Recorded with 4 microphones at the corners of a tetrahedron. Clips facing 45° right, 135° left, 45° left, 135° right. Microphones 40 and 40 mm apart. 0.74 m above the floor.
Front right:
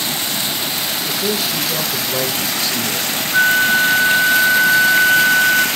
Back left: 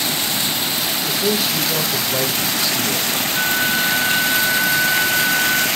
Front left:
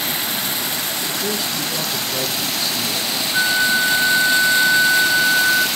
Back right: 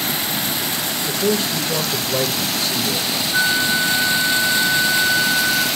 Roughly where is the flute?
Right.